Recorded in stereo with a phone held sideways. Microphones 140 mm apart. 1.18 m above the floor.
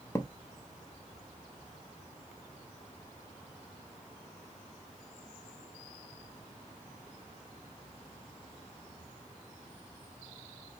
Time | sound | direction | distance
0.1 | a thud | 25° left (ahead or behind) | 0.8 m